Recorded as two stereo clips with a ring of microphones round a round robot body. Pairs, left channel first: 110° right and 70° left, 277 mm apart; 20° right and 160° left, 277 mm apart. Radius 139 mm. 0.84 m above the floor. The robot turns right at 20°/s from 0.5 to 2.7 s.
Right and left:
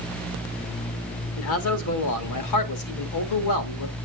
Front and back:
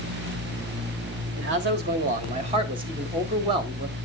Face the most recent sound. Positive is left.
turn(degrees=-130)